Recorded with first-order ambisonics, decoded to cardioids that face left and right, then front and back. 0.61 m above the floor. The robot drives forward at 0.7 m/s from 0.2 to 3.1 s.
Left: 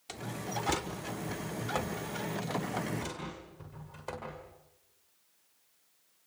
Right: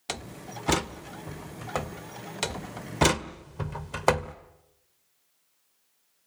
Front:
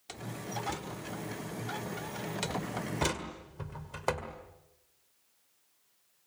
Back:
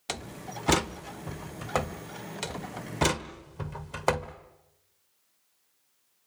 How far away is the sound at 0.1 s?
About 0.7 m.